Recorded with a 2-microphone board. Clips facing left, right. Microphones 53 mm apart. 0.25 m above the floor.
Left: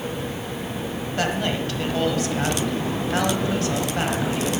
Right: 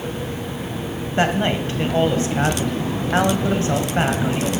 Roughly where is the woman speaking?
Right.